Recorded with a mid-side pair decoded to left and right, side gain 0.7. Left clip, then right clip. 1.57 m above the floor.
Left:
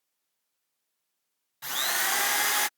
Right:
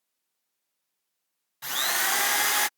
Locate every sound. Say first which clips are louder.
1.6 s a drill: right 2 dB; 10° right